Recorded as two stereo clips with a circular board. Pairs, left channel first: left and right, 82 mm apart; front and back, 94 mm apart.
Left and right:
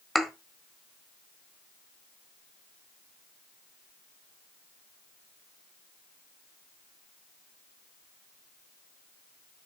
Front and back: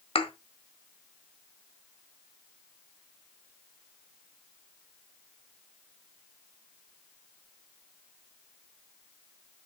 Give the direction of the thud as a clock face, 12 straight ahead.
12 o'clock.